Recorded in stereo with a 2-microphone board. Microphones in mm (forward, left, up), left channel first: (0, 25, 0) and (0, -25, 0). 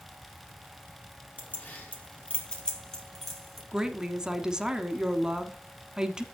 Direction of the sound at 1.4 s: 40° left (ahead or behind).